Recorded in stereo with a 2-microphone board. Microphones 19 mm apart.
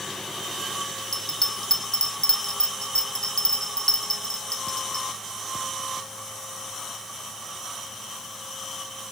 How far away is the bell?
About 1.2 m.